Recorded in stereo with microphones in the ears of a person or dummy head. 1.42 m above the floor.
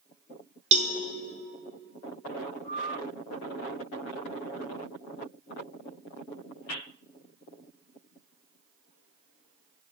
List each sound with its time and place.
0.7 s a cowbell: 40° right (ahead or behind), 0.7 m